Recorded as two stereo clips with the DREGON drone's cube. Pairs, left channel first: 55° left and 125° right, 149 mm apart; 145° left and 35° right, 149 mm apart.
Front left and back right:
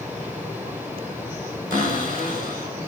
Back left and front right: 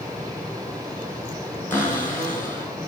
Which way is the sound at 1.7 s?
140° right.